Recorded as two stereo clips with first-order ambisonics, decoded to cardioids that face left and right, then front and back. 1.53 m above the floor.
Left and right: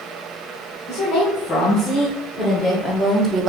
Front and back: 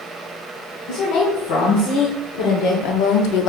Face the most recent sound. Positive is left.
turn(degrees=-30)